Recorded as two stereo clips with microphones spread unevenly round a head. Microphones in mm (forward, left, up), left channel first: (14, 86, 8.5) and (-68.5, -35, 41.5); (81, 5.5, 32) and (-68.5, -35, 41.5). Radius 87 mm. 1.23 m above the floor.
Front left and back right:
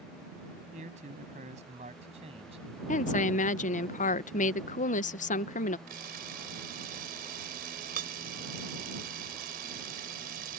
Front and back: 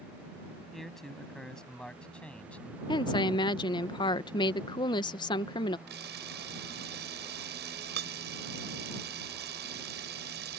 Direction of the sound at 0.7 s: 75° right.